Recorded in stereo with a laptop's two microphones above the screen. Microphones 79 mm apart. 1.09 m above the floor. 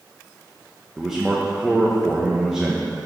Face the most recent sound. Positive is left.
turn(degrees=-10)  # may be behind; listen again after turning